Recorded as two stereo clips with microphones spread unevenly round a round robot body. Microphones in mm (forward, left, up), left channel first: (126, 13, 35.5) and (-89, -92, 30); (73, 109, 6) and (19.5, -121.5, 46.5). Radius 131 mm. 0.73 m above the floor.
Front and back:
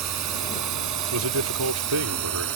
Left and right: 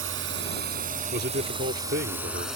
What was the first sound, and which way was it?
A drone, 150° right.